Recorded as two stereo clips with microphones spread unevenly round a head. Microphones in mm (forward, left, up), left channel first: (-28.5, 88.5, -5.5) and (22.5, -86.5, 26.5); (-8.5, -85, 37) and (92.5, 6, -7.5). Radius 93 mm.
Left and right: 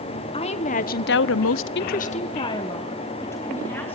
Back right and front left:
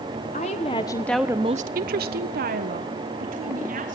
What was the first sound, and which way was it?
A woman speaking, 165° left.